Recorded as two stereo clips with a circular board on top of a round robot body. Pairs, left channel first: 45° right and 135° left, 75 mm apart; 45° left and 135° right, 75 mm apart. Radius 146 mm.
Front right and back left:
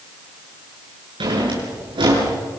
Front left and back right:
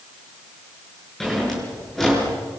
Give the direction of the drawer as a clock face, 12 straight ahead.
8 o'clock.